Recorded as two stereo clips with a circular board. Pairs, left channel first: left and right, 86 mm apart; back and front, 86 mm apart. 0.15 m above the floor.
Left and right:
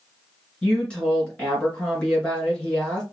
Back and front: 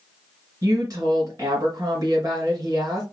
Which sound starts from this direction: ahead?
A woman speaking, at 0.6 s.